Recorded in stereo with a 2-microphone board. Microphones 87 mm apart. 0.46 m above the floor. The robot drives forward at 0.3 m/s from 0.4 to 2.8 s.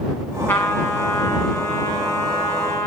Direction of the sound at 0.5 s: 20° left (ahead or behind).